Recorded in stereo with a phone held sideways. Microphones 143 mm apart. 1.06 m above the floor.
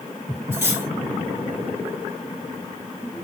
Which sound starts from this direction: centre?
Cutlery clinking, at 0.5 s.